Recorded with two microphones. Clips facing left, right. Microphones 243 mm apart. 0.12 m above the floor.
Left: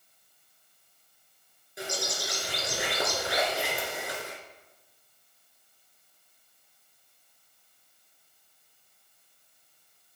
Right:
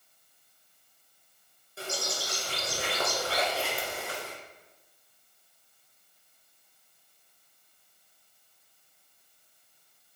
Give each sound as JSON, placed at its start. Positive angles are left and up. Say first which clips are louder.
{"t": 1.8, "sound": "a bird", "louder": "left 1 dB", "side_deg": 15, "distance_m": 2.0}